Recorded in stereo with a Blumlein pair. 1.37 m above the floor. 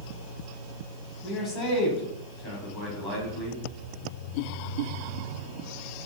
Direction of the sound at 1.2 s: 25° left.